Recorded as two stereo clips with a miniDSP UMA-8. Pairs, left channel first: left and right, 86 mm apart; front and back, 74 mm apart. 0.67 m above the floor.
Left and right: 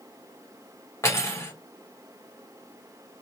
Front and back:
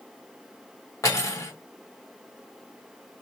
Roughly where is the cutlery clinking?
Ahead left.